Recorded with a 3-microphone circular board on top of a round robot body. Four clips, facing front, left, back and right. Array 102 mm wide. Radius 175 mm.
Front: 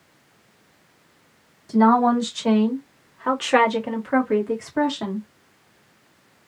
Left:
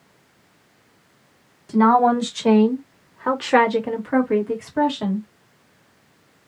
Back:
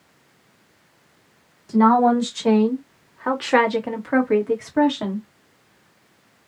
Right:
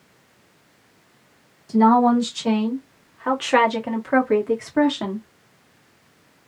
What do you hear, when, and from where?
1.7 s a woman speaking: 100° left, 1.9 m; by 5.3 s 110° right, 1.8 m